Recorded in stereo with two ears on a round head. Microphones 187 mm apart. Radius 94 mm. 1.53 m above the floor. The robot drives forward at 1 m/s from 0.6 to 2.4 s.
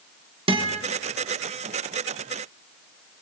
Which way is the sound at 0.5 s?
25° right (ahead or behind).